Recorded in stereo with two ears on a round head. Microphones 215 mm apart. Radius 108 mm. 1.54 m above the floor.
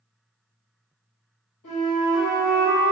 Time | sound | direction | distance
1.6 | a flute | 75° left (ahead or behind) | 1.6 m